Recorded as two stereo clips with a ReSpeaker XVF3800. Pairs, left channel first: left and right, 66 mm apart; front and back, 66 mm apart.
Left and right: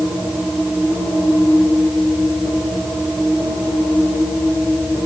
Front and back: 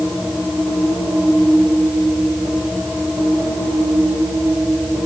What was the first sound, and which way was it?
Only background noise.